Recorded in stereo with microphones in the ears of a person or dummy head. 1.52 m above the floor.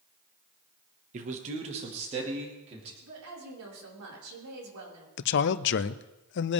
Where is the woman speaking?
75° right (ahead or behind), 5 m.